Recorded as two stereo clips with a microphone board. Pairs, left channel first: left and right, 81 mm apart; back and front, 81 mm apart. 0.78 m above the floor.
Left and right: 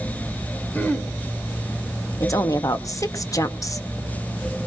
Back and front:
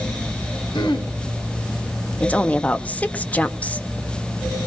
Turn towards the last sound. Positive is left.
turn(degrees=110)